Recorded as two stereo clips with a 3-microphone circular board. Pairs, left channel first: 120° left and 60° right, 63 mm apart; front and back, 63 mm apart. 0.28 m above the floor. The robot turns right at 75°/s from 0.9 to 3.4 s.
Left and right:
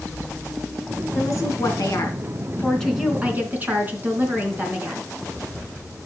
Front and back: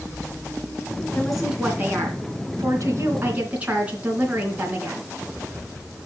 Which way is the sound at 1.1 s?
75° left.